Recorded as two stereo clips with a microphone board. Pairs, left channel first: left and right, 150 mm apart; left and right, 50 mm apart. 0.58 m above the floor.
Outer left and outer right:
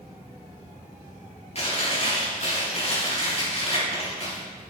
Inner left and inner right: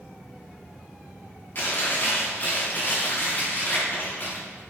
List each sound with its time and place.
1.6 s chewing: 45° left (ahead or behind), 4.5 m